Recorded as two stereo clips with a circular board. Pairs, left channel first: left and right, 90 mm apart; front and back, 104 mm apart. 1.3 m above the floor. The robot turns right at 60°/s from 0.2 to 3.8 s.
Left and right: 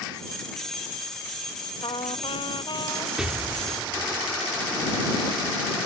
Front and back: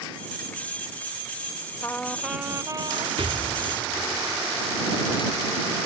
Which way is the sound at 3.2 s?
175° right.